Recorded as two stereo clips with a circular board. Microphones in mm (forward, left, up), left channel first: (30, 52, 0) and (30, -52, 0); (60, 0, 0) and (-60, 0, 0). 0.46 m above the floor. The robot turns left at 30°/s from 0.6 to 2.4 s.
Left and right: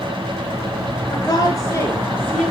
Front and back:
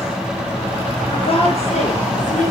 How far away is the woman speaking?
About 7.5 m.